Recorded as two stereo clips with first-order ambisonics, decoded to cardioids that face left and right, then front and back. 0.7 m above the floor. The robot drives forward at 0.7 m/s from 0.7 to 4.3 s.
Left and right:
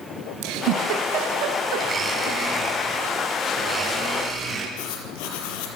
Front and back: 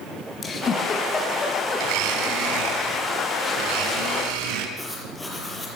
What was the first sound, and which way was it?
A giggle, 65° right.